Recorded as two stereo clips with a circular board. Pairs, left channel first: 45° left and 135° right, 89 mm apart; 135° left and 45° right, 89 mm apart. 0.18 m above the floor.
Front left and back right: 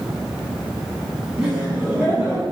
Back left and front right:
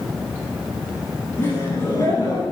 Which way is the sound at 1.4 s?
155° left.